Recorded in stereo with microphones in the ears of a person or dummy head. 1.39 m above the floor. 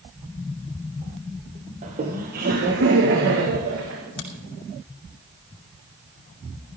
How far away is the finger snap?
About 2.5 m.